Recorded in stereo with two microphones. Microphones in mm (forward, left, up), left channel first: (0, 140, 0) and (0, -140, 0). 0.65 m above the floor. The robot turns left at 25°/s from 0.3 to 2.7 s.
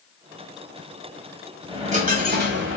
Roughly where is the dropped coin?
Centre.